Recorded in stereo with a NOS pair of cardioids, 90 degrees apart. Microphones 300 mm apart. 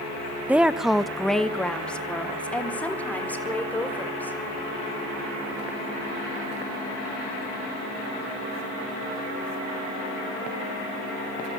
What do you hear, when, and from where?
0.5 s a woman speaking: 5° right, 1.1 m; by 4.4 s 5° left, 6 m